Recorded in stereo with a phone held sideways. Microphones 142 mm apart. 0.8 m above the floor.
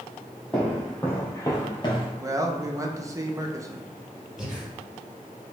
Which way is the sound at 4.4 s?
5° right (ahead or behind).